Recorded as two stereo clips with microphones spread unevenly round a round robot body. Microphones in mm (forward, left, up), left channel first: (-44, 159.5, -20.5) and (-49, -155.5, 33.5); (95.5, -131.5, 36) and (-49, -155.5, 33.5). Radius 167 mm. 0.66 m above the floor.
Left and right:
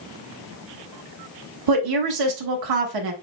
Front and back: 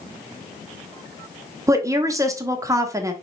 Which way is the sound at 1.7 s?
100° right.